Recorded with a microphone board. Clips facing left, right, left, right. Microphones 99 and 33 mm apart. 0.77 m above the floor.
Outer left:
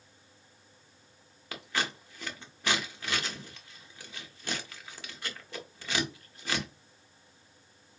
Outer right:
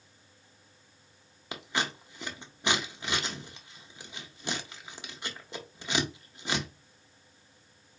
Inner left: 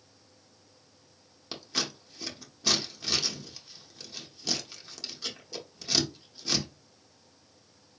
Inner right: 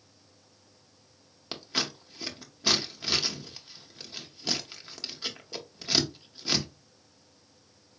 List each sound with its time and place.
1.5 s scissors: 20° right (ahead or behind), 0.6 m